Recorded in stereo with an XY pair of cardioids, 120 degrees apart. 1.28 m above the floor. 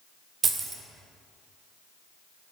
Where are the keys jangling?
35° right, 0.8 m.